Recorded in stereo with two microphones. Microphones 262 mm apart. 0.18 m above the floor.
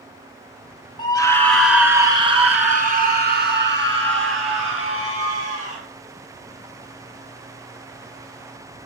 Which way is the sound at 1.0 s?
20° left (ahead or behind).